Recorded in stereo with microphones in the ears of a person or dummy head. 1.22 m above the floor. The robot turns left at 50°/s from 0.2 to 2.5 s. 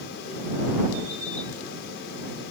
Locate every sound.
Only background noise.